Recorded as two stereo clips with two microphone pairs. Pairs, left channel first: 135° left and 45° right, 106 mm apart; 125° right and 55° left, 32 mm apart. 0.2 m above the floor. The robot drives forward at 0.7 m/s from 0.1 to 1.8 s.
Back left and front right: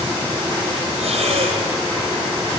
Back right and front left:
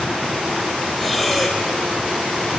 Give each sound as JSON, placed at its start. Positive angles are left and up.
{"t": 1.0, "sound": "breathing", "azimuth_deg": -40, "distance_m": 5.0}